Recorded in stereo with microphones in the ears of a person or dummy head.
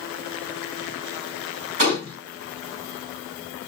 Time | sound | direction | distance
1.8 | a gunshot | 45° right (ahead or behind) | 2 m